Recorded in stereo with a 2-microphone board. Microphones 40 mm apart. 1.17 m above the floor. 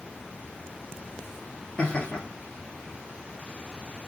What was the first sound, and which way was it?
Laughter, 25° left (ahead or behind).